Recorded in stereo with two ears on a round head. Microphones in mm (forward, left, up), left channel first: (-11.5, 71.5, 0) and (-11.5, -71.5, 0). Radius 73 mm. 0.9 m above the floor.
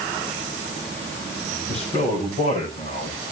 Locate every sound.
1.7 s a man speaking: 45° left (ahead or behind), 5.5 m